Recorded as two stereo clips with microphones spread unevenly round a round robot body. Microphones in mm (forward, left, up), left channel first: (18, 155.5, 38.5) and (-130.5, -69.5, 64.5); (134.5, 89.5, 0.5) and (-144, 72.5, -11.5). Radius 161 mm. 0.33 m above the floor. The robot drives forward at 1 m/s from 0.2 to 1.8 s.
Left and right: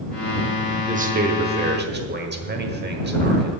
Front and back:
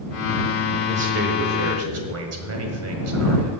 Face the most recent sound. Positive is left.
turn(degrees=-175)